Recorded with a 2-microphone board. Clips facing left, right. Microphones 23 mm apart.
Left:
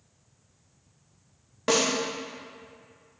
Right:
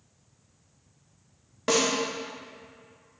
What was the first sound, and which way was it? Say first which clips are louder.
A snare drum: even; 5° left (ahead or behind).